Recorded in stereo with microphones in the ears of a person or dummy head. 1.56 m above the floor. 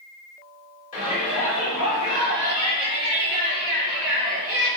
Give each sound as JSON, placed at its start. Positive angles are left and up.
{"t": 0.9, "sound": "a shout", "side_deg": 40, "distance_m": 2.5}